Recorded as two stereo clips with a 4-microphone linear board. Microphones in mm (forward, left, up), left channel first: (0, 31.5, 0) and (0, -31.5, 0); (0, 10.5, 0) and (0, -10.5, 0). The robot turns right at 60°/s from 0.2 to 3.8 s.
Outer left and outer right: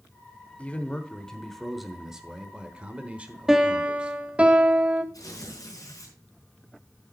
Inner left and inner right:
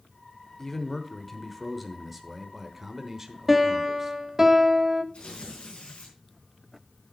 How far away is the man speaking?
About 1.0 m.